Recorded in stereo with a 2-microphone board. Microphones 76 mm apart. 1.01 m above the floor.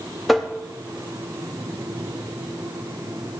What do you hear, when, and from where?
0.3 s tapping: centre (ahead or behind), 0.9 m